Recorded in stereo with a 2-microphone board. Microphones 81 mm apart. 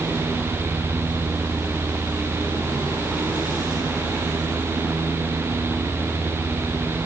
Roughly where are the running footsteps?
No running footsteps in this recording.